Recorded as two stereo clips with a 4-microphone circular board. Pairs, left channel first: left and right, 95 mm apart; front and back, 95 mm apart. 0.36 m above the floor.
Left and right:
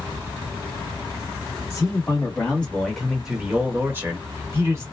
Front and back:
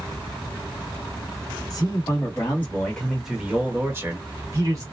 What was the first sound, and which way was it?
A man speaking, 35° left.